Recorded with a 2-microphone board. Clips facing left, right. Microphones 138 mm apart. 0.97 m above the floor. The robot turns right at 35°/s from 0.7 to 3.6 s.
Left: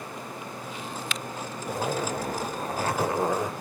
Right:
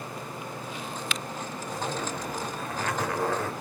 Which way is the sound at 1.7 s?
100° left.